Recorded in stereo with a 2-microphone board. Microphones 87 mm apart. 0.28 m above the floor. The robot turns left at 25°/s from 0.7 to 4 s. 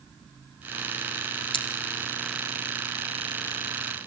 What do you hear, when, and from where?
1.5 s scissors: 75° left (ahead or behind), 4.5 m; by 1.6 s 70° left (ahead or behind), 4.5 m